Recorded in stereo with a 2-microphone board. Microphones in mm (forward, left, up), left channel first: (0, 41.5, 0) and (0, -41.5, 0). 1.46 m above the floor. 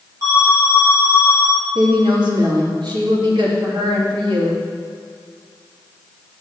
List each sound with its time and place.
0.2 s an alarm: 40° right (ahead or behind), 4 m
1.8 s a woman speaking: 65° right (ahead or behind), 3 m